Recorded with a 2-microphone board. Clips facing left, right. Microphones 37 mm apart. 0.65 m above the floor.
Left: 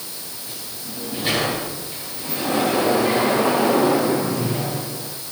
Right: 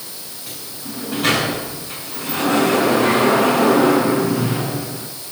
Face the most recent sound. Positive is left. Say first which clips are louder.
# right 5 dB
turn(degrees=-75)  # may be behind; listen again after turning